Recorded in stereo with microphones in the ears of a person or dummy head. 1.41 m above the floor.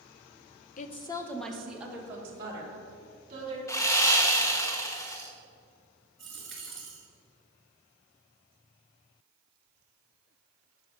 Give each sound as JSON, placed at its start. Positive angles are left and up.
{"t": 0.8, "sound": "a woman speaking", "side_deg": 50, "distance_m": 0.7}
{"t": 3.7, "sound": "sawing", "side_deg": 15, "distance_m": 0.8}
{"t": 6.2, "sound": "a dropped coin", "side_deg": 5, "distance_m": 1.9}